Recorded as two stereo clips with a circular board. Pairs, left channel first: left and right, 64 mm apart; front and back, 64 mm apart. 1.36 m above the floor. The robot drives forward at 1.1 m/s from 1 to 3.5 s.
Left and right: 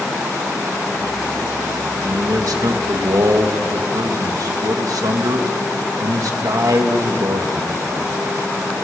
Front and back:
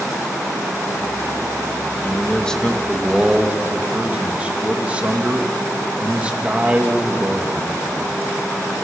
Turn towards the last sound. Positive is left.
turn(degrees=-110)